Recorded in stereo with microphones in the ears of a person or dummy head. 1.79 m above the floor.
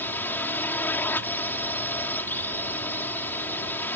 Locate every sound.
0.0 s a drone: 5° left (ahead or behind)